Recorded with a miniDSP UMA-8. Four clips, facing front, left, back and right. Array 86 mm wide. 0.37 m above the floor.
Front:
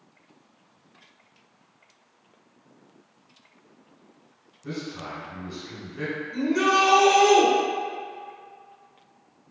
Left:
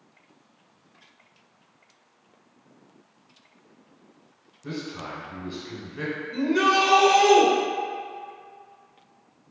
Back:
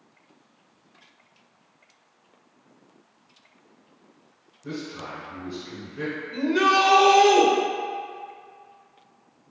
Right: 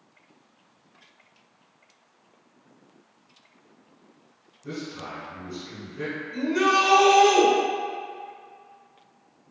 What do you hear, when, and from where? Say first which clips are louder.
4.6 s a man speaking: left 1 dB, even; 85° left, 1.5 m
6.3 s a shout: left 1 dB, back 1 dB; 160° left, 0.9 m